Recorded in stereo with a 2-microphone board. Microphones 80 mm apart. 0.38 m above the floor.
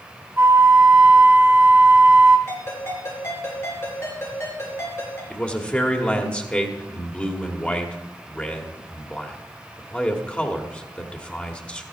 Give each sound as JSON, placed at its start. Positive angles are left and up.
{"t": 0.4, "sound": "a flute", "side_deg": -30, "distance_m": 1.2}
{"t": 2.5, "sound": "a ringtone", "side_deg": 35, "distance_m": 5.0}
{"t": 5.3, "sound": "a man speaking", "side_deg": 15, "distance_m": 1.5}